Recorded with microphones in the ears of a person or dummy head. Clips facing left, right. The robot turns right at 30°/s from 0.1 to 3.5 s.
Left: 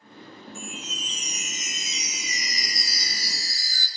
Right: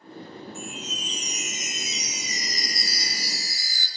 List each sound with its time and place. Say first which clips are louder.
0.6 s a chime: right 2 dB; 110° left, 2.5 m; by 3.9 s 160° right, 2.5 m